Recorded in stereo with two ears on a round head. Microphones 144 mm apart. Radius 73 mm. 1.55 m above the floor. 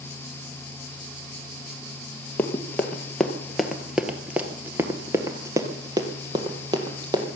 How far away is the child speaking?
I don't hear a child speaking.